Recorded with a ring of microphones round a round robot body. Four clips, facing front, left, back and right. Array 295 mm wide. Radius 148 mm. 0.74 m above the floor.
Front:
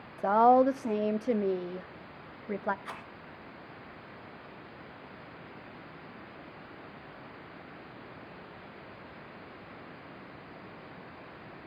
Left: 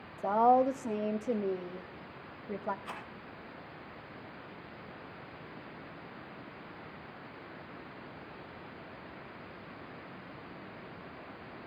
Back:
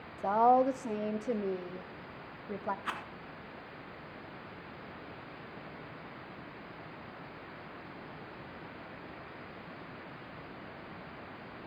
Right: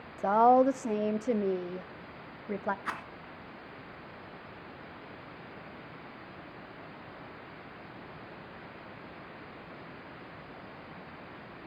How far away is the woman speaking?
About 0.7 m.